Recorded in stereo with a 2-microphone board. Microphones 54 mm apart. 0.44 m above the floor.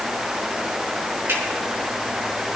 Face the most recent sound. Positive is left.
turn(degrees=-50)  # may be behind; listen again after turning